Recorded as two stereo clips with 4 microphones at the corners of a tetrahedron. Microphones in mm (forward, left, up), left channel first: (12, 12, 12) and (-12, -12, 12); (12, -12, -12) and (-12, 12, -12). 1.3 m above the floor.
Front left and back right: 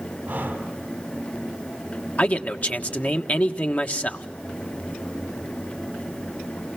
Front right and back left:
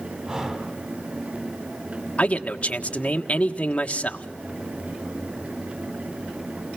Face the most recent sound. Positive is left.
turn(degrees=5)